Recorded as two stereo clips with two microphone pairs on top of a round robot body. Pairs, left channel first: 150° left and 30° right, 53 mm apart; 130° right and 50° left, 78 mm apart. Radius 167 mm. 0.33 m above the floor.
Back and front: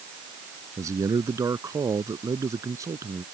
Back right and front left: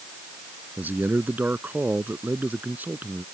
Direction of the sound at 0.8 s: 15° right.